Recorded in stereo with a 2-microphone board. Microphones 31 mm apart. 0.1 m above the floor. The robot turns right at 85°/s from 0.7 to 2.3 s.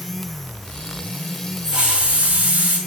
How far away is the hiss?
About 7 m.